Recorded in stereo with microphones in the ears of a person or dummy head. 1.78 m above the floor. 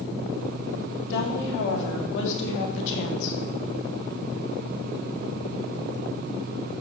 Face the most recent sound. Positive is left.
turn(degrees=70)  # may be behind; listen again after turning